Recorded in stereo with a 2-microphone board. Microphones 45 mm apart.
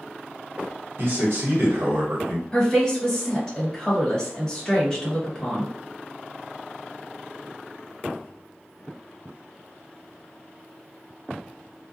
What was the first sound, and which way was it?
A man speaking, 65° right (ahead or behind).